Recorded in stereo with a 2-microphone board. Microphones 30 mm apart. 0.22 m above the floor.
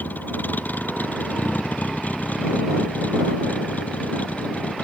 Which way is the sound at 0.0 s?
75° left (ahead or behind).